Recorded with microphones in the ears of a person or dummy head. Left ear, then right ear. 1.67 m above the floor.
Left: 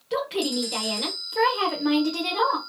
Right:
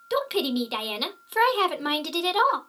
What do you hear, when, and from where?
0.1 s a woman speaking: 55° right (ahead or behind), 0.7 m